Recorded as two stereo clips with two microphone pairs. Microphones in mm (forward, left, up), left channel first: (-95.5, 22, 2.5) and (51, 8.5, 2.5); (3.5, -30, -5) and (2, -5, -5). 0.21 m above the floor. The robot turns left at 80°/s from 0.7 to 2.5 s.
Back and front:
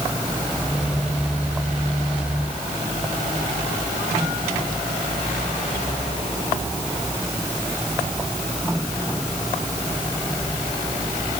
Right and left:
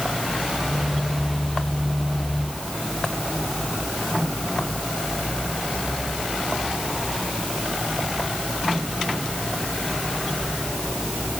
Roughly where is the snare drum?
I don't hear a snare drum.